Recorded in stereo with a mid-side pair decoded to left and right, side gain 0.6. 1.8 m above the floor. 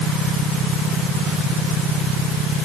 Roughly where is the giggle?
No giggle in this recording.